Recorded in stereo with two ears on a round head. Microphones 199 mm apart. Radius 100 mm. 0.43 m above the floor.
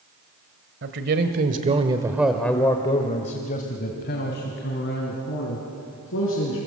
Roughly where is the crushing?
I don't hear crushing.